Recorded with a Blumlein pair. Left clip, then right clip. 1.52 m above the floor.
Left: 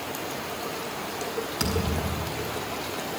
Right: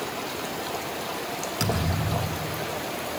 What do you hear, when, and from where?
1.6 s a thud: straight ahead, 5 m